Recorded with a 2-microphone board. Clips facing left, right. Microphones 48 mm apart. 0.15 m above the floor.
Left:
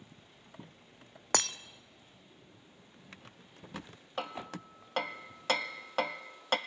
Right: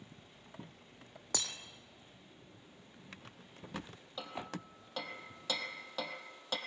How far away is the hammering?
About 1.0 m.